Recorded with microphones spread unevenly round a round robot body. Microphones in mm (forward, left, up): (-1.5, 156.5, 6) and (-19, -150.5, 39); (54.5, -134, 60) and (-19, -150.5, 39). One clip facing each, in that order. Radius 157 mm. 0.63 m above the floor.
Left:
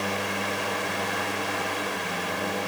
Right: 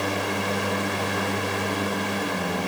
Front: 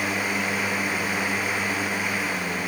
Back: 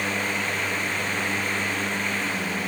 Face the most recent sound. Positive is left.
No sound to turn to.